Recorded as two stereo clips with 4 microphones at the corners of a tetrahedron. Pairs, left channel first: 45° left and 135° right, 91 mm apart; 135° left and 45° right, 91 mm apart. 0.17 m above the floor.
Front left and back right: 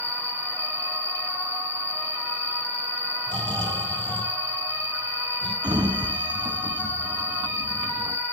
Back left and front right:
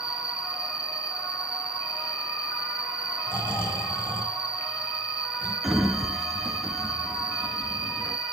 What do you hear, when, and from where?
0.0 s an insect: 15° left, 1.5 m
3.3 s snoring: 165° right, 2.5 m
5.6 s a sliding door: 135° right, 0.8 m